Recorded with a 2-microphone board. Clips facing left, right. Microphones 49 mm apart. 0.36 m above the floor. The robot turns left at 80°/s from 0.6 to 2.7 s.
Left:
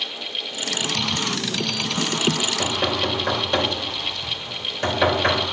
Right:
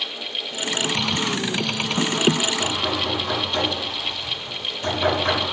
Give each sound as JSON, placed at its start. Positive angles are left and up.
{"t": 2.4, "sound": "knocking", "side_deg": 75, "distance_m": 3.5}